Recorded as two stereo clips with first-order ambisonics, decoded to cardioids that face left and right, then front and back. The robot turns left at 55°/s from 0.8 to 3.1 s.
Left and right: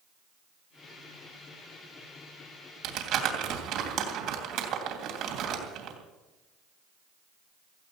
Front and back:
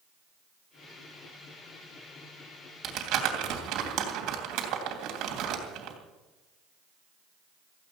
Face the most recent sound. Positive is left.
turn(degrees=-140)